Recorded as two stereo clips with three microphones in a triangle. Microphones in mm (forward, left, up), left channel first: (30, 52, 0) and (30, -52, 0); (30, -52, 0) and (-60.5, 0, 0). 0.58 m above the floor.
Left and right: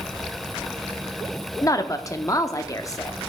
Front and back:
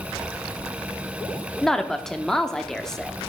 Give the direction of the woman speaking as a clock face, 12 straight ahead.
10 o'clock.